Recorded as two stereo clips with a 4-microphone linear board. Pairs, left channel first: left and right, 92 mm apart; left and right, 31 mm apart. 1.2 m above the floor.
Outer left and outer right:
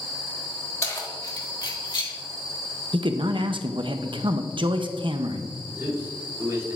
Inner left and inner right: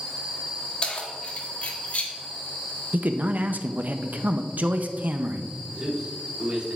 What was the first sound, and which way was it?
Keys jangling, 35° left (ahead or behind).